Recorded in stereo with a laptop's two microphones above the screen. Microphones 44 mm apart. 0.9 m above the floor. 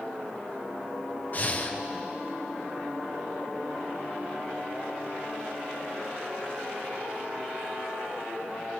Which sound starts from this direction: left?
Breathing, at 1.3 s.